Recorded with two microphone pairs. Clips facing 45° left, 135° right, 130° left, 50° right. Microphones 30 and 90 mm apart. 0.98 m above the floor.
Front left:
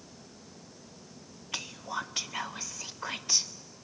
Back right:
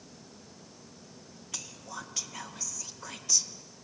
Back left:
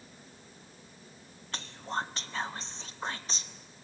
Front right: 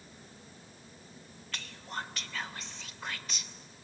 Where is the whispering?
80° left, 0.5 m.